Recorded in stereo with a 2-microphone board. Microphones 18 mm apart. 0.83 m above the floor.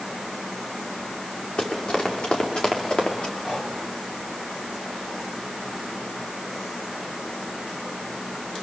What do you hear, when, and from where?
1.6 s running footsteps: 85° left, 6.5 m; by 3.3 s 75° left (ahead or behind), 5 m
3.4 s breathing: 55° left (ahead or behind), 5 m